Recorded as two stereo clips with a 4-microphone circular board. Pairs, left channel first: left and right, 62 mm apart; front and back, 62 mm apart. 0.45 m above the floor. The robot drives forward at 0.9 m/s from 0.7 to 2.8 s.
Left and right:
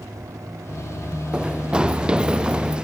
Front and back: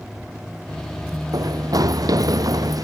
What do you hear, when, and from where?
1.3 s running footsteps: 165° right